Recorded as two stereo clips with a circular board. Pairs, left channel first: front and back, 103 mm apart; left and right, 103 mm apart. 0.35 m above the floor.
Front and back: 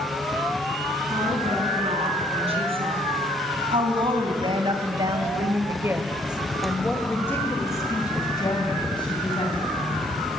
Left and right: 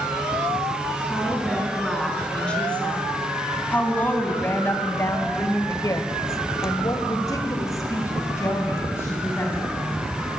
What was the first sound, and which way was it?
A woman speaking, 175° left.